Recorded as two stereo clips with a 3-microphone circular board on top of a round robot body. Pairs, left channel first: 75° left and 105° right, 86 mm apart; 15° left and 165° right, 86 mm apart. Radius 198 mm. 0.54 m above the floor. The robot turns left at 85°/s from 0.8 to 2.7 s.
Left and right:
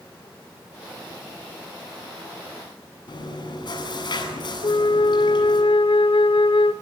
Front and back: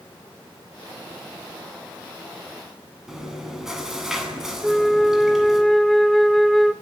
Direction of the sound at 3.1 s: 110° left.